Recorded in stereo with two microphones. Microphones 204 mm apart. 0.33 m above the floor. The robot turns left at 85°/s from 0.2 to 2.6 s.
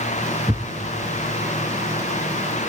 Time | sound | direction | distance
0.5 | a thud | 5° left (ahead or behind) | 0.9 m